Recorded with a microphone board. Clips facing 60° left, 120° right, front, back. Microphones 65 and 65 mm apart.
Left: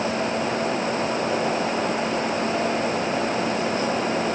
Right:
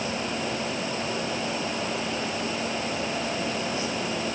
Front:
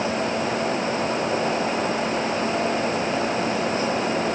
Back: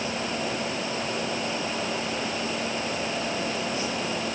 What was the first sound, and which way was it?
Only background noise.